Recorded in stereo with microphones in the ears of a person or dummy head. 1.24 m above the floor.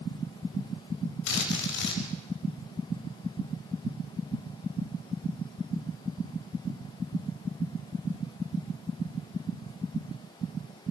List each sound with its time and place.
1.3 s a drill: 70° left (ahead or behind), 4.5 m